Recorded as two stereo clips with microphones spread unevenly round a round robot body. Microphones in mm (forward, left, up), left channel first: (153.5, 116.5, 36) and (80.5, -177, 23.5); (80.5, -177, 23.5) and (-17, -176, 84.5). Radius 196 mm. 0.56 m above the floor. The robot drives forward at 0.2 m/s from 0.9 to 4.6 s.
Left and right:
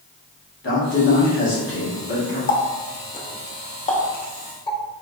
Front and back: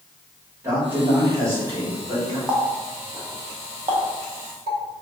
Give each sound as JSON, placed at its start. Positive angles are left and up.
{"t": 0.6, "sound": "a man speaking", "azimuth_deg": 75, "distance_m": 1.2}
{"t": 2.5, "sound": "a running tap", "azimuth_deg": 40, "distance_m": 0.5}